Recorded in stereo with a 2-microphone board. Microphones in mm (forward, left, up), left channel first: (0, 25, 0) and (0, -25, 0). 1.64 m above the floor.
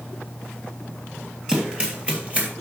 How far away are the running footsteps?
About 2.5 m.